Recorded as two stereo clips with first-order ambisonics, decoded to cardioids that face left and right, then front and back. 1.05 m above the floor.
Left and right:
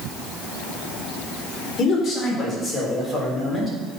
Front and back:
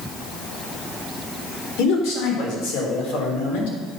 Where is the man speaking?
25° left, 4.5 m; by 3.8 s straight ahead, 4 m.